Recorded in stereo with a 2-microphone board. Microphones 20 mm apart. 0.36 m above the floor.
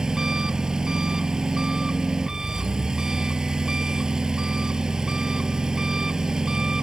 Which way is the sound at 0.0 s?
30° right (ahead or behind).